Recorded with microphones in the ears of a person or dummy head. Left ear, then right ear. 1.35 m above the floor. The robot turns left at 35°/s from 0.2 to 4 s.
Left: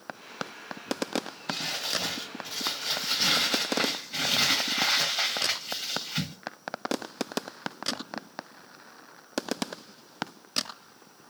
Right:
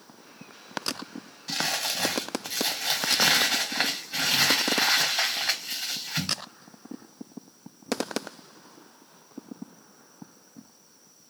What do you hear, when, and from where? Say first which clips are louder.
1.5 s crumpling: right 3 dB; 95° right, 2 m; by 6.3 s 175° left, 2 m